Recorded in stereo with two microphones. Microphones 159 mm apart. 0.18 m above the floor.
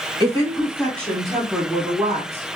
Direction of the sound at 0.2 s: 25° left (ahead or behind).